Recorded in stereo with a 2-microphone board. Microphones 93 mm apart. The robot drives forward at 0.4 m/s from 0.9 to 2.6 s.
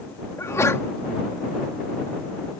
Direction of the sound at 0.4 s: 30° left (ahead or behind).